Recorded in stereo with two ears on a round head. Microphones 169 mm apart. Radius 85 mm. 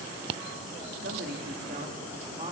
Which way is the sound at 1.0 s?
60° right (ahead or behind).